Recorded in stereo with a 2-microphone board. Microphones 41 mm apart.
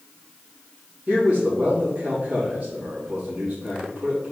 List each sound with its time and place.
1.1 s a man speaking: 30° right (ahead or behind), 2.5 m